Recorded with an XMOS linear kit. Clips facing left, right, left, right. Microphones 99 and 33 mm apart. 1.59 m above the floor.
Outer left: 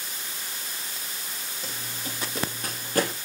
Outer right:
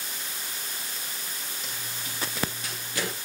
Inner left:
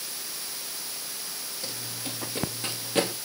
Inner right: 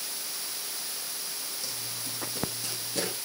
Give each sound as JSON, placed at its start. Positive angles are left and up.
{"t": 1.6, "sound": "running footsteps", "side_deg": 35, "distance_m": 1.9}